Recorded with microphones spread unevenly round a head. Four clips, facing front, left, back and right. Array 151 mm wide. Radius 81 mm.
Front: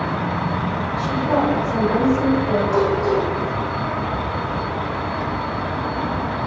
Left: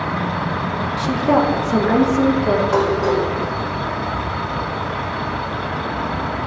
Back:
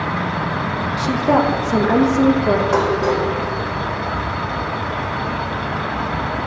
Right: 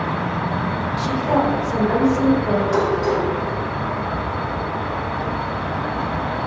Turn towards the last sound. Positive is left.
turn(degrees=155)